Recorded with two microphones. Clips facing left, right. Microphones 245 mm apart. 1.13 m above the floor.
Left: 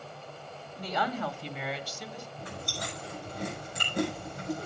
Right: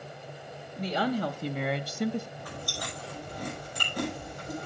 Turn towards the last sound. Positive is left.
turn(degrees=25)  # may be behind; listen again after turning